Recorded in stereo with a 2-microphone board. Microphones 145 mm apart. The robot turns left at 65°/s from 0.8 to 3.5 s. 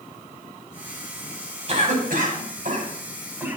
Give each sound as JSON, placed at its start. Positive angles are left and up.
{"t": 1.7, "sound": "a cough", "side_deg": -45, "distance_m": 4.5}